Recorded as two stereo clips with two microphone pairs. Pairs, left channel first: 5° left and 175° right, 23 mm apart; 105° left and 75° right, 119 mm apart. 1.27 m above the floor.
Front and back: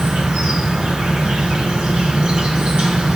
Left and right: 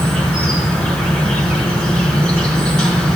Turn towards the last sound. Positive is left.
turn(degrees=-175)